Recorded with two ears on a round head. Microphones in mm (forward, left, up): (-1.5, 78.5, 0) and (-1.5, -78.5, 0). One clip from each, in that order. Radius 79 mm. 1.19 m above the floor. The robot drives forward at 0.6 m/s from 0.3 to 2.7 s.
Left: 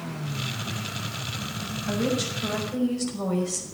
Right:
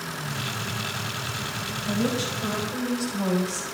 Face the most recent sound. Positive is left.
turn(degrees=20)  # may be behind; listen again after turning